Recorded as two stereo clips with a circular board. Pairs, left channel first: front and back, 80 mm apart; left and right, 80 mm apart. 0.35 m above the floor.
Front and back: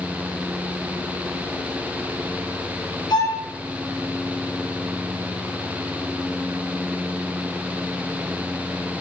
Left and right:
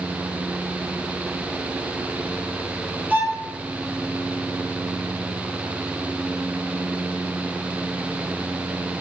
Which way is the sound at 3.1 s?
20° right.